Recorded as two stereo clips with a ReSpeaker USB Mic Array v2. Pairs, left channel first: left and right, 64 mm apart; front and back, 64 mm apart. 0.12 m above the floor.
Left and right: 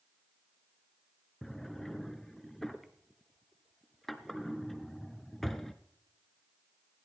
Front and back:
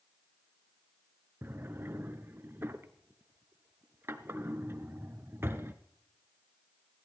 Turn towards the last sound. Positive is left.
turn(degrees=175)